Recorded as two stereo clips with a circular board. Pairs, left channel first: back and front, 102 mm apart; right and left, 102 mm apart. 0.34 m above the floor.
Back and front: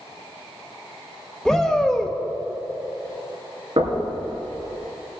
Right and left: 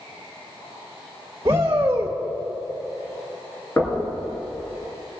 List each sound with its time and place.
1.4 s a shout: 95° left, 0.9 m
3.8 s knocking: 25° right, 3.5 m